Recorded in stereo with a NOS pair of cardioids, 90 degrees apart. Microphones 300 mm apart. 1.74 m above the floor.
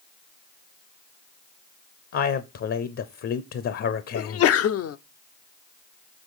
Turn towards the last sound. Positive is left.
turn(degrees=55)